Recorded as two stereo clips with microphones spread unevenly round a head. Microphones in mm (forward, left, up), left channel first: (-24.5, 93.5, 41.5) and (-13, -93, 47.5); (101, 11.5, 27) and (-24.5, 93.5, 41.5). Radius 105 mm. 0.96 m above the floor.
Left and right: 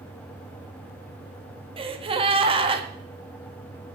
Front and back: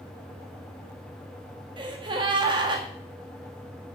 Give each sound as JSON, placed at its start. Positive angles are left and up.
{"t": 1.8, "sound": "a gasp", "azimuth_deg": -145, "distance_m": 1.6}